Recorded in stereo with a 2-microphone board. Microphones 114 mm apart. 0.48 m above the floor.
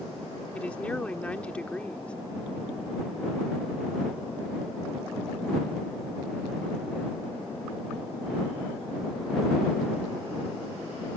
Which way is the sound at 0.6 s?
10° left (ahead or behind).